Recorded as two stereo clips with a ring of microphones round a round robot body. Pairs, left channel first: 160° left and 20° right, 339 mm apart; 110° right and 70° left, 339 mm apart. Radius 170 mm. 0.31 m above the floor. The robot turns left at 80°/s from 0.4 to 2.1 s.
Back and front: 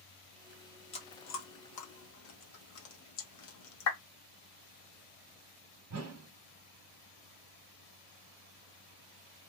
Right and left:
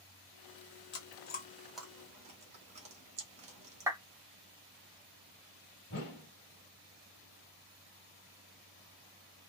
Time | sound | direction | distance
0.9 | chewing | 135° right | 1.3 m
3.9 | a clap | 145° left | 1.5 m
5.9 | a whoosh | 60° right | 1.6 m